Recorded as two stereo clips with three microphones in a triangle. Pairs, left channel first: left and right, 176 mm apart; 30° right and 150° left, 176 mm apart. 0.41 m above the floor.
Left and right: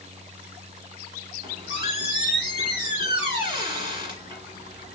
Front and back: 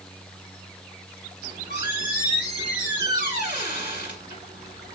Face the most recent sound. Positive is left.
turn(degrees=-30)